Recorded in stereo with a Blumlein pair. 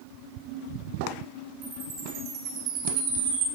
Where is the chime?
30° right, 3.5 m.